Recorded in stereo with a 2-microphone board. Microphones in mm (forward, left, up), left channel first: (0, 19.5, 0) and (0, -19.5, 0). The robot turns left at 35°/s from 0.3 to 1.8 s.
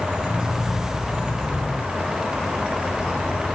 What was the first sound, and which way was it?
Only background noise.